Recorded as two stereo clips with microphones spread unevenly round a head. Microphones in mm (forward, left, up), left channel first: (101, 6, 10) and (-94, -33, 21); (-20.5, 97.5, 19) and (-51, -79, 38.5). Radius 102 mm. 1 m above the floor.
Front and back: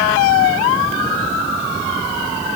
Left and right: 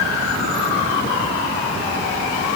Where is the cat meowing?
No cat meowing in this recording.